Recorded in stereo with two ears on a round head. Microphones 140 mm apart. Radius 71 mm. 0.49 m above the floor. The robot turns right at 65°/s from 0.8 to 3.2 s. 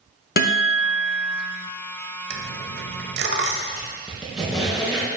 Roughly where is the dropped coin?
Right.